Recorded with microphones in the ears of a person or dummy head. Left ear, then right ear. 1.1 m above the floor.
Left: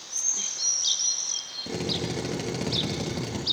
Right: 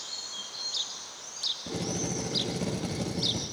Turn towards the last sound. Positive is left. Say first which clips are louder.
# left 3 dB
turn(degrees=25)  # may be behind; listen again after turning